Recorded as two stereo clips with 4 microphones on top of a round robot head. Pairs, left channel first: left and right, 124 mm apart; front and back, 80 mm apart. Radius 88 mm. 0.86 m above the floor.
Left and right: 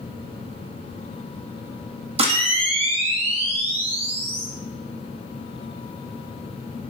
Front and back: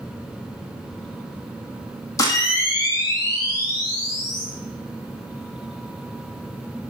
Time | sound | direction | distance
2.2 | a camera shutter | 50° right | 1.6 m